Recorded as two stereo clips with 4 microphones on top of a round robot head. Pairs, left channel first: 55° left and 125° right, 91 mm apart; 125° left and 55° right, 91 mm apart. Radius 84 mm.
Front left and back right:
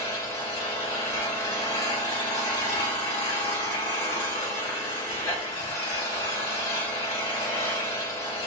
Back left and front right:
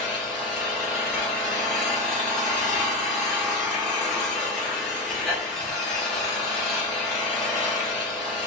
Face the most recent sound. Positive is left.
turn(degrees=35)